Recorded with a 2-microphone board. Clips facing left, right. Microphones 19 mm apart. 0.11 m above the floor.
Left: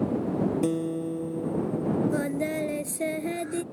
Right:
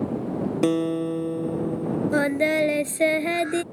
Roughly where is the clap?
I don't hear a clap.